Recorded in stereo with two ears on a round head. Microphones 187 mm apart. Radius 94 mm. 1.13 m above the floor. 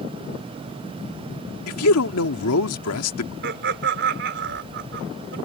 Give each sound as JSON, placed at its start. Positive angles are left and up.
{"t": 1.7, "sound": "a man speaking", "side_deg": 85}
{"t": 3.4, "sound": "laughter", "side_deg": -60}